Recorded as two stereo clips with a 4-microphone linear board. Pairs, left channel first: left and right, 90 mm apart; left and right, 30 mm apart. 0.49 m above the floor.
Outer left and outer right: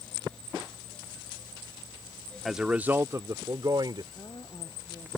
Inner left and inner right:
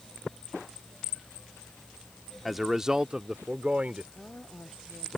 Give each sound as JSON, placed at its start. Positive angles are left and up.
{"t": 2.5, "sound": "a man speaking", "side_deg": 0}
{"t": 4.2, "sound": "a woman speaking", "side_deg": 65}